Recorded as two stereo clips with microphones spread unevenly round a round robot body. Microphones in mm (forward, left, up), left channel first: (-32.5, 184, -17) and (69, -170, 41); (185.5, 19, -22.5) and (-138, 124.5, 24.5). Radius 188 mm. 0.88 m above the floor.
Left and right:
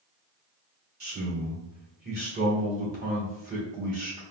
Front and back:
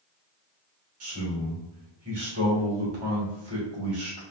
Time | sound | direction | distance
1.0 | a man speaking | 140° right | 1.7 m